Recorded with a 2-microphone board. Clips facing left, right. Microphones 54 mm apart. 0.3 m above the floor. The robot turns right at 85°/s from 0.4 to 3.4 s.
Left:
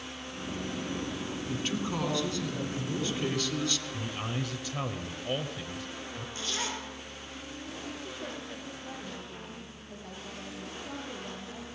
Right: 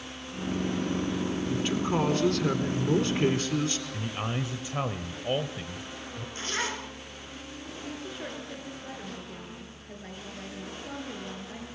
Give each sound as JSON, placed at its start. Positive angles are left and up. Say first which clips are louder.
{"t": 1.5, "sound": "a man speaking", "louder": "right 4 dB", "azimuth_deg": 165, "distance_m": 4.0}
{"t": 3.9, "sound": "a man speaking", "louder": "right 2 dB", "side_deg": -20, "distance_m": 1.2}
{"t": 6.3, "sound": "a zipper", "louder": "right 4 dB", "side_deg": -35, "distance_m": 3.0}
{"t": 7.8, "sound": "a woman speaking", "louder": "right 4 dB", "side_deg": -40, "distance_m": 6.5}